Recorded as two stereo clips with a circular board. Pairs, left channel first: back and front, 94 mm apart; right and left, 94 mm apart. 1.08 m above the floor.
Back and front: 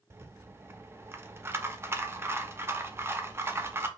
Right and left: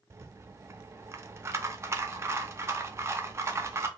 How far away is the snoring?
I don't hear snoring.